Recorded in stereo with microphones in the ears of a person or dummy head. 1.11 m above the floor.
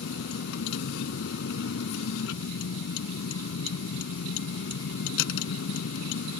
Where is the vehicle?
75° left (ahead or behind).